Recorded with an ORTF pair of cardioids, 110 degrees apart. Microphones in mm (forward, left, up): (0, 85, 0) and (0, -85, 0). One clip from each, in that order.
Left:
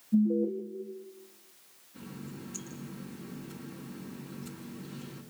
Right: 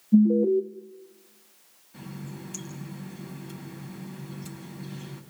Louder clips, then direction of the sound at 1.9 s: Right 3 dB; 60° right.